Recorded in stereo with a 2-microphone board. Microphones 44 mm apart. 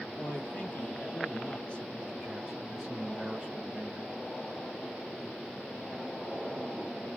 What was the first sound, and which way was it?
A man speaking, 55° left (ahead or behind).